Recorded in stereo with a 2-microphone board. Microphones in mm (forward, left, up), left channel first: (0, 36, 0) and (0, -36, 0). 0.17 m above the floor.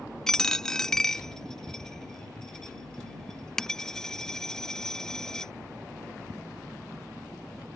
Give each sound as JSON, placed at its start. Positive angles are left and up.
{"t": 0.3, "sound": "a dropped coin", "side_deg": 10}